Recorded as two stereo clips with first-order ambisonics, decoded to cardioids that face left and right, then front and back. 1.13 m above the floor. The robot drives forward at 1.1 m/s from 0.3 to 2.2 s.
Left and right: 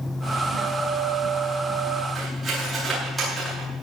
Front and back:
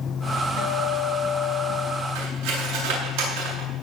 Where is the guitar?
20° right, 2 m; by 2.0 s 75° right, 0.9 m.